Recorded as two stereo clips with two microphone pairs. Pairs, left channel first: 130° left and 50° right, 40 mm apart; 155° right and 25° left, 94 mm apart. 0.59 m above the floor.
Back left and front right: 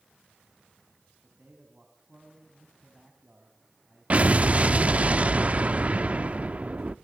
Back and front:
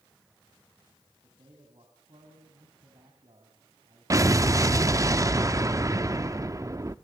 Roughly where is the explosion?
Ahead.